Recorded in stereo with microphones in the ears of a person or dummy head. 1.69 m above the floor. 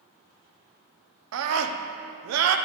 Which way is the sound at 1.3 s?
80° right.